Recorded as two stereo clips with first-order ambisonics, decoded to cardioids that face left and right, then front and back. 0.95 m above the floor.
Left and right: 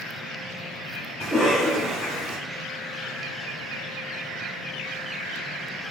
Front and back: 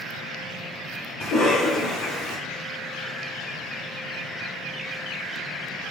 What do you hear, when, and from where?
1.2 s a cough: straight ahead, 2.0 m